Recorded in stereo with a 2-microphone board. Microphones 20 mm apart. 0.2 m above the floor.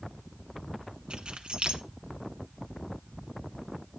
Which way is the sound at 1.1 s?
55° right (ahead or behind).